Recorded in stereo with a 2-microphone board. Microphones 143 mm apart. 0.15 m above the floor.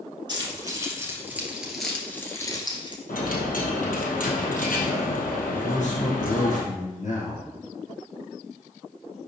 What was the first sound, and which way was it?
Keys jangling, 30° right (ahead or behind).